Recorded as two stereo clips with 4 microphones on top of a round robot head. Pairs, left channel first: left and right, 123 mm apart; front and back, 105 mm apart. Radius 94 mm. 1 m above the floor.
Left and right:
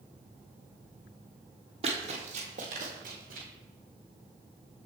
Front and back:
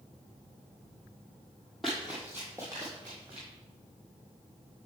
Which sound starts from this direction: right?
Running footsteps, at 1.8 s.